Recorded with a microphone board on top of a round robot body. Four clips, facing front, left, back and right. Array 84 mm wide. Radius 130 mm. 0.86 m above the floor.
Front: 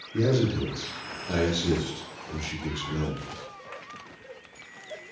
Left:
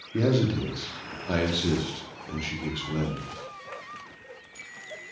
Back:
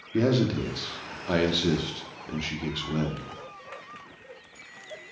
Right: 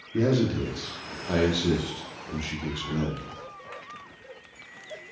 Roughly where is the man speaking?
Behind.